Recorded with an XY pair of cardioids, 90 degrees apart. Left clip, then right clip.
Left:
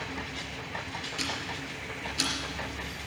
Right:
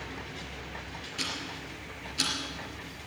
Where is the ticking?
10° left, 4 m.